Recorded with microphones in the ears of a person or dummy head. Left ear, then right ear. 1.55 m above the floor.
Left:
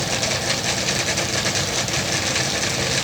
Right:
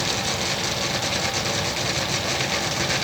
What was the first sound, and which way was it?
Only background noise.